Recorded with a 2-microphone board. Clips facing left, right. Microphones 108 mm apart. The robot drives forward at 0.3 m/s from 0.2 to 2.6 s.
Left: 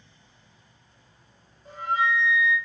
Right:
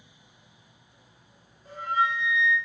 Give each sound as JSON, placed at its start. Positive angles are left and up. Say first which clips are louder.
{"t": 1.6, "sound": "a flute", "louder": "left 1 dB", "side_deg": 25, "distance_m": 1.1}